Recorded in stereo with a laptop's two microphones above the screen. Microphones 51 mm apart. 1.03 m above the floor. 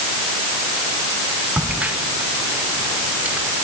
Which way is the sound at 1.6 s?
30° right (ahead or behind).